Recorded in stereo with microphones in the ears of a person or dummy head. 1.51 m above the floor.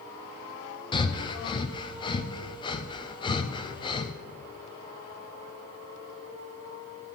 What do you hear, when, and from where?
0.9 s breathing: 20° left (ahead or behind), 0.6 m